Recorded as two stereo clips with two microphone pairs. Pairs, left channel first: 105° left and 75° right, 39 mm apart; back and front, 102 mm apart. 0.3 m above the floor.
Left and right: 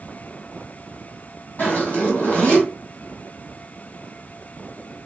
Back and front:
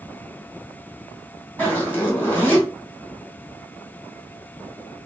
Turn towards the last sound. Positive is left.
turn(degrees=115)